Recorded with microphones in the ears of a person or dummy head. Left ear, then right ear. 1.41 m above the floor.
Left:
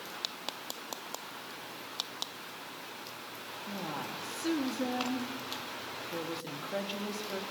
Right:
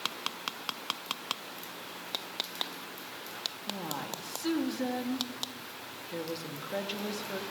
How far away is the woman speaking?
About 3 m.